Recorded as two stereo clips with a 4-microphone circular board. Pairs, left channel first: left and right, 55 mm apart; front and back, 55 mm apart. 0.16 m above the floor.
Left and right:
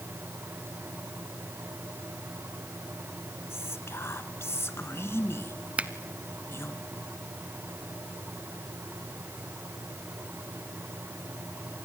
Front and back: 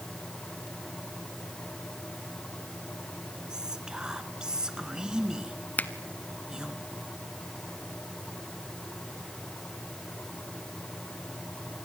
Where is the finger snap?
40° right, 1.0 m.